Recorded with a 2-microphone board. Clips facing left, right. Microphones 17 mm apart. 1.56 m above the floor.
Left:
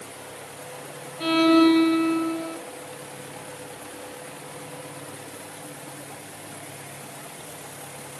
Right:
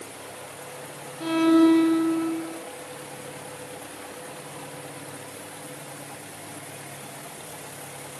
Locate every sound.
1.2 s a violin: 65° left (ahead or behind), 2 m